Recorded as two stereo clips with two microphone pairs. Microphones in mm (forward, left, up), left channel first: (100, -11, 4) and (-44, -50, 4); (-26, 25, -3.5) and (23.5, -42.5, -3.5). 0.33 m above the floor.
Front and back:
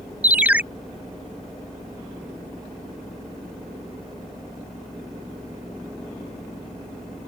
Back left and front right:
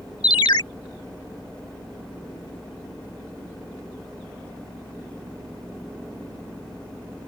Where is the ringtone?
115° left.